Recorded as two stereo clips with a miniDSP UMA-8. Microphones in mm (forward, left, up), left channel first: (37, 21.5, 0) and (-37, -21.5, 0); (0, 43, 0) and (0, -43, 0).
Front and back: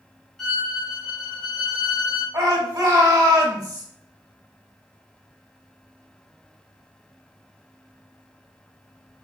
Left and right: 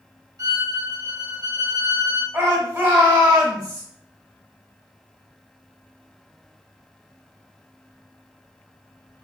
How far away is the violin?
About 1.0 m.